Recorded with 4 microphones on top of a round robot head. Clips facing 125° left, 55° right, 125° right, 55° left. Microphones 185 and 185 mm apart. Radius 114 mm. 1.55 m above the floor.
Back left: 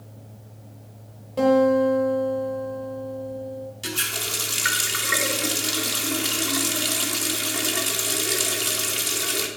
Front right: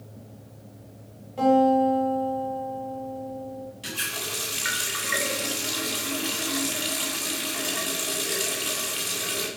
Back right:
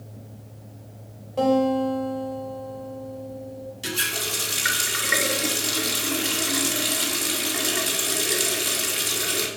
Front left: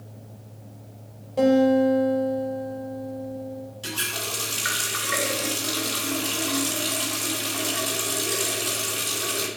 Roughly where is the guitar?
Behind left.